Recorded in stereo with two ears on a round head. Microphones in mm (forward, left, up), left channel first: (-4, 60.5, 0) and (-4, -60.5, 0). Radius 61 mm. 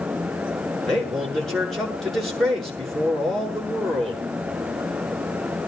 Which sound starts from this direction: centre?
A man speaking, at 0.8 s.